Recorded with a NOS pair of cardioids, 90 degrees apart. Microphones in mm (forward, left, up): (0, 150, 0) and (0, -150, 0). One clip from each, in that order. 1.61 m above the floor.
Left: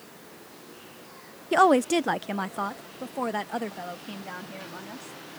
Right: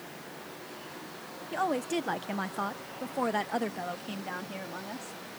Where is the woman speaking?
70° left; by 5.2 s 15° right.